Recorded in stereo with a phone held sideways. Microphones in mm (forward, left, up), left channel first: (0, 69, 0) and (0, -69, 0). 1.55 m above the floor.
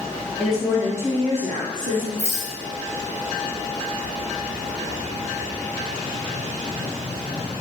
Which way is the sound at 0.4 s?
5° left (ahead or behind).